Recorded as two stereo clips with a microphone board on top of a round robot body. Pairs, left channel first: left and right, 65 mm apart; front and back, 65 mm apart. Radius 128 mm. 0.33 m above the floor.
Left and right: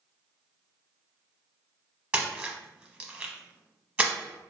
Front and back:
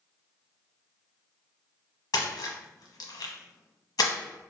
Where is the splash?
25° right, 0.9 m.